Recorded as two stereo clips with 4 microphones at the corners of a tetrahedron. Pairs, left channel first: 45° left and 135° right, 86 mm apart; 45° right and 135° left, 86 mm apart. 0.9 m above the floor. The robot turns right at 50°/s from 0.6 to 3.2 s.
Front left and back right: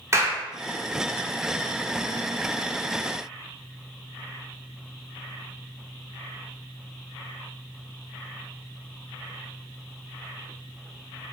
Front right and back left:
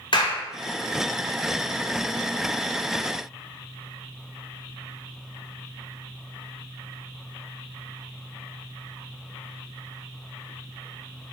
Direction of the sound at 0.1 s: 75° right.